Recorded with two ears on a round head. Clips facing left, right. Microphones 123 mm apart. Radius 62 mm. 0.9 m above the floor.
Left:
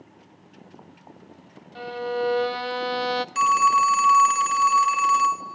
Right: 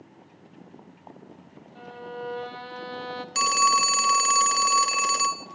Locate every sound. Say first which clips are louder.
1.8 s a violin: left 10 dB; 85° left, 0.7 m
3.4 s a phone ringing: left 3 dB; 40° right (ahead or behind), 0.8 m